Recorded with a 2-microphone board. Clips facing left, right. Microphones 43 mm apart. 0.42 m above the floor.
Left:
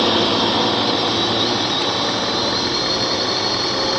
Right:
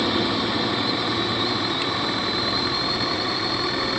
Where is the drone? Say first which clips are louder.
Left 6 dB; 70° left (ahead or behind); by 4.0 s 75° left (ahead or behind).